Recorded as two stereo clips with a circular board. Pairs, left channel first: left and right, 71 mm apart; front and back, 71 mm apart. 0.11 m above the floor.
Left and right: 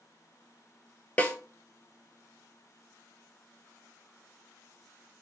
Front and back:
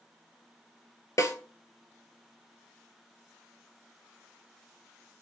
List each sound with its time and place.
1.2 s a snare drum: 25° left, 0.7 m